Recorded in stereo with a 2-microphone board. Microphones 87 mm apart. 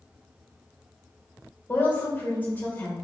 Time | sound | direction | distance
1.7 | a woman speaking | 20° left (ahead or behind) | 1.3 m